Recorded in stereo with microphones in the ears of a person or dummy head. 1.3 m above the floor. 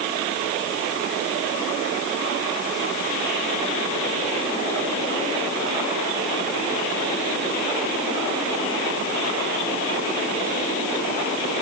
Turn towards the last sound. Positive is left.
No sound to turn to.